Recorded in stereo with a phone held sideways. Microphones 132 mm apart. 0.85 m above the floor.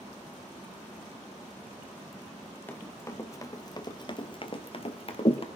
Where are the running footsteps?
15° left (ahead or behind), 1.3 m; by 5.5 s 45° left (ahead or behind), 1.2 m.